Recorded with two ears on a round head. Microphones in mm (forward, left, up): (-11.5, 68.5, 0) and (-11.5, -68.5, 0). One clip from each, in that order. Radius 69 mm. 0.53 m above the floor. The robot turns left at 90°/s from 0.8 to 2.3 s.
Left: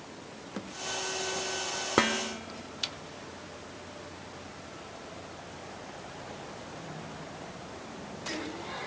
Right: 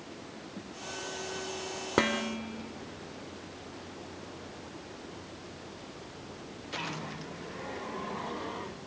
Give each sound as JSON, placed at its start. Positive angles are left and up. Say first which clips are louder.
{"t": 2.0, "sound": "dishes clattering", "louder": "left 1 dB", "side_deg": 15, "distance_m": 1.1}